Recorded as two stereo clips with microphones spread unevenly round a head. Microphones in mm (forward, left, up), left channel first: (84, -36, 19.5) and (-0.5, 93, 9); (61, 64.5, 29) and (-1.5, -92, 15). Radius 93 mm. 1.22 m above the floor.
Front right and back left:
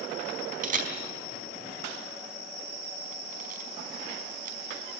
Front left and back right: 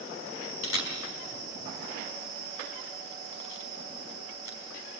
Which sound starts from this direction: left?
A camera shutter, at 0.6 s.